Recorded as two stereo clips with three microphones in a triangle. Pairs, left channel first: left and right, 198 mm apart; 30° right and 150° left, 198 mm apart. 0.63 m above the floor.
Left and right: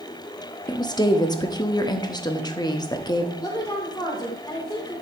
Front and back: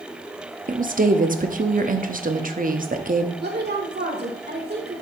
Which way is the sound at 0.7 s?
150° left.